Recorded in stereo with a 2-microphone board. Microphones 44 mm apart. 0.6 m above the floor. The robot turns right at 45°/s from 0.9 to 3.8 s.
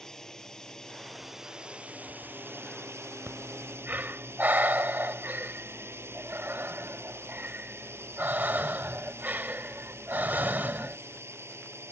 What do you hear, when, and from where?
0.0 s a drone: 15° left (ahead or behind); by 11.9 s 75° right (ahead or behind)
3.3 s breathing: 70° right (ahead or behind); by 11.0 s 45° right (ahead or behind)